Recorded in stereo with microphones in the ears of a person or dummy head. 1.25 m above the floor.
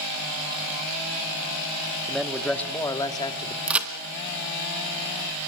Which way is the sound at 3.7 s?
5° right (ahead or behind).